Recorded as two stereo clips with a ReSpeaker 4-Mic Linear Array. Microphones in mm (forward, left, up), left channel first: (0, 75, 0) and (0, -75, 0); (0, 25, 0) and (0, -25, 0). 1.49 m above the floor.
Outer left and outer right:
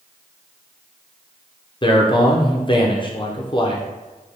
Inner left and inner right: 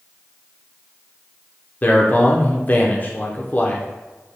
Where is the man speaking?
35° left (ahead or behind), 0.6 m.